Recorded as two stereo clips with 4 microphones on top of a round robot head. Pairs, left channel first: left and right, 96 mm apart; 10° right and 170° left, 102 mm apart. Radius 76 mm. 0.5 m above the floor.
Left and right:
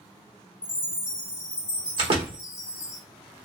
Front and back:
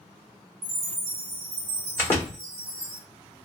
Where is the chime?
170° right, 1.2 m.